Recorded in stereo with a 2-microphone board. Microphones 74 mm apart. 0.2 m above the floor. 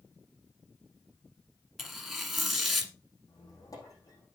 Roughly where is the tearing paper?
Centre.